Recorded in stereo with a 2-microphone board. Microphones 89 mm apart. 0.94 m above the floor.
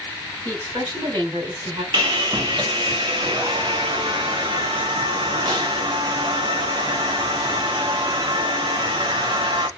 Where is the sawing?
65° right (ahead or behind), 1.0 m.